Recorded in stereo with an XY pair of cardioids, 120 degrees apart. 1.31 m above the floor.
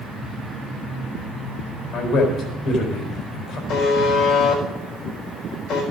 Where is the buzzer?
65° left, 4.5 m.